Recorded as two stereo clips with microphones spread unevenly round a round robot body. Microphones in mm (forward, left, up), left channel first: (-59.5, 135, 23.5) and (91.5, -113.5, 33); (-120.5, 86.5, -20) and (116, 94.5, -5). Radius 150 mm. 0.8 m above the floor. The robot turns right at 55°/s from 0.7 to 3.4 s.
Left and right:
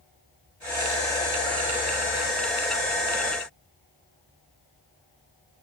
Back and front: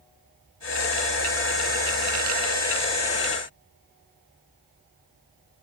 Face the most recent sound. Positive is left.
No sound to turn to.